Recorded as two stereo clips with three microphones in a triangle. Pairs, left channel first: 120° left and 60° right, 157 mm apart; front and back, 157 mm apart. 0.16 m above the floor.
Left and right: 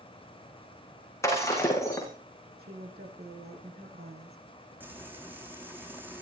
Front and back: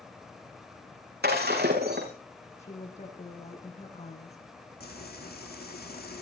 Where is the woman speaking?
45° right, 8 m.